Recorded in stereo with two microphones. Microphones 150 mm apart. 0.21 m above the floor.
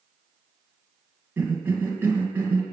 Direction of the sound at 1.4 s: 15° right (ahead or behind).